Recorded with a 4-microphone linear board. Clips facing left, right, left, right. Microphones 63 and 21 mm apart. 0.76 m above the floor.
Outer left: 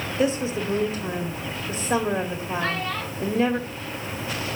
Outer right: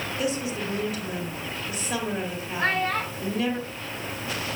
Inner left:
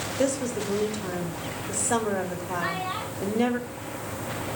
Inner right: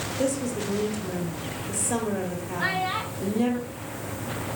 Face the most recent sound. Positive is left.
turn(degrees=-40)  # may be behind; listen again after turning